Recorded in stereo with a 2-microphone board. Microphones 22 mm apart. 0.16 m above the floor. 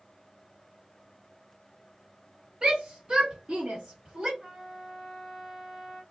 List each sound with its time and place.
2.6 s a shout: 40° right (ahead or behind), 1.9 m; by 4.3 s 30° right (ahead or behind), 3.5 m
4.4 s a trumpet: 15° right (ahead or behind), 2.5 m